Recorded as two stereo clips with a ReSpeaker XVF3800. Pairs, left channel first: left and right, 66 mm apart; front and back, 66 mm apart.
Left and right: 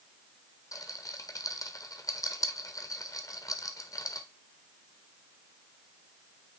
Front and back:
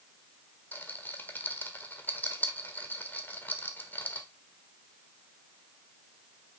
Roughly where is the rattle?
Ahead left.